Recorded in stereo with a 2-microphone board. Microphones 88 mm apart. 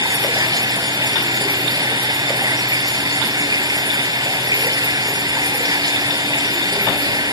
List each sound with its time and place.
0.0 s running water: 50° right (ahead or behind)